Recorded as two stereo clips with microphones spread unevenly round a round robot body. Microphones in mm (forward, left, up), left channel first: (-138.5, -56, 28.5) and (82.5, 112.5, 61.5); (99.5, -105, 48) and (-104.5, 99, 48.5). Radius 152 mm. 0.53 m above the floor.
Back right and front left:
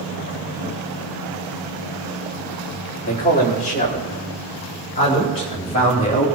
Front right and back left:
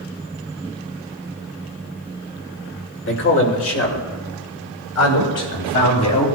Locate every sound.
3.0 s a man speaking: 90° right, 2 m; by 6.3 s 75° right, 4.5 m